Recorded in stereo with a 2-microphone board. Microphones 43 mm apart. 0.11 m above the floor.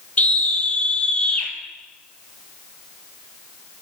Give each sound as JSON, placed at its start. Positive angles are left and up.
{"t": 0.2, "sound": "a scream", "side_deg": 35, "distance_m": 3.0}